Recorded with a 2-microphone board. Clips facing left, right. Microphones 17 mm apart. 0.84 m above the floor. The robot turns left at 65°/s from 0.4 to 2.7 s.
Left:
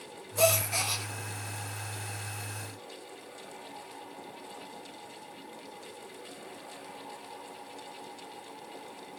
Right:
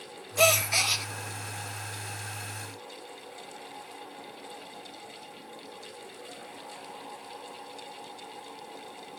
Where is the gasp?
75° right, 1.0 m; by 1.1 s 120° right, 1.0 m.